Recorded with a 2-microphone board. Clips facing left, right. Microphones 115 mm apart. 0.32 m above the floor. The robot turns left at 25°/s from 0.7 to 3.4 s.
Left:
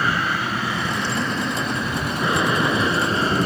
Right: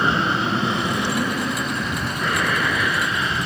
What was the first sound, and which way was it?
An aircraft, 155° right.